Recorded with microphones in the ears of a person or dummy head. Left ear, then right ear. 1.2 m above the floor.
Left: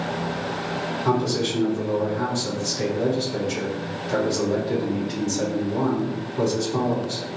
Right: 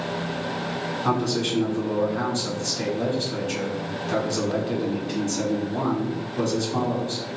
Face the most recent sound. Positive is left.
turn(degrees=-35)  # may be behind; listen again after turning